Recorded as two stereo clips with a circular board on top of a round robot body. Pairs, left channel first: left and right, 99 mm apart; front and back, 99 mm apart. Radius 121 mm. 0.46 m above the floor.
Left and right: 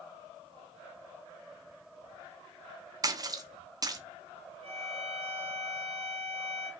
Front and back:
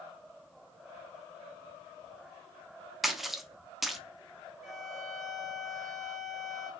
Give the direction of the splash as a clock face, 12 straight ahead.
3 o'clock.